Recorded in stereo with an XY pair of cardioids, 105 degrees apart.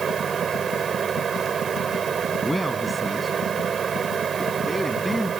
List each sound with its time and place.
0.0 s a fan: 45° right
2.4 s a man speaking: straight ahead